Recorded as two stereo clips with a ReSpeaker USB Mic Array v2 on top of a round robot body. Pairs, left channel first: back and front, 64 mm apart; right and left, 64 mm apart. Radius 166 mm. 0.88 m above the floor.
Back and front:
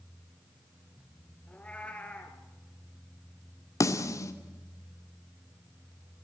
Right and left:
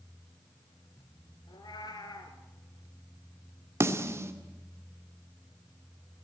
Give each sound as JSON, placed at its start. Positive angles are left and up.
{"t": 1.5, "sound": "a cat meowing", "azimuth_deg": -105, "distance_m": 1.9}
{"t": 3.8, "sound": "a snare drum", "azimuth_deg": 140, "distance_m": 1.9}